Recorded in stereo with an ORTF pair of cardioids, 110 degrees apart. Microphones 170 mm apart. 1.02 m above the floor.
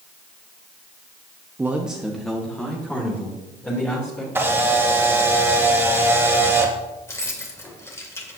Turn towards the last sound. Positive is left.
turn(degrees=15)